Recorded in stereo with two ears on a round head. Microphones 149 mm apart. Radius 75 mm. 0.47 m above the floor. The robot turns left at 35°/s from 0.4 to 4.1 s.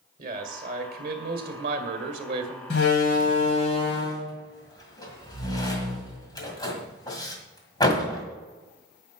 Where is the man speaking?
65° right, 2 m; by 2.6 s 145° right, 2 m.